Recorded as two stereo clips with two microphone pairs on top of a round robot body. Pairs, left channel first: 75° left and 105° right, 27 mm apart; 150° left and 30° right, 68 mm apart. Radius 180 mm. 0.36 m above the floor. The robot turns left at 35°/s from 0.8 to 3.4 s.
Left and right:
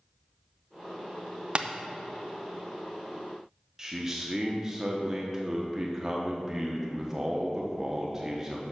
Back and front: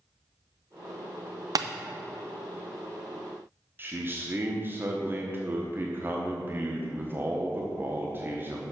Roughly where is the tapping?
Ahead right.